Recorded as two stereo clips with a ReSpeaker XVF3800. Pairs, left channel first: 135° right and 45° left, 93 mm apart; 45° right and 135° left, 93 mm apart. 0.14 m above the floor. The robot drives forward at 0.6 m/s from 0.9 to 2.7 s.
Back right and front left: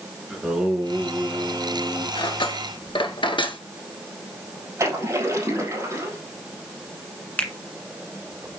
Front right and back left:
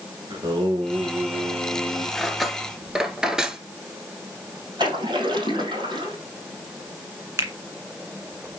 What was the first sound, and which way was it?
Singing, 125° left.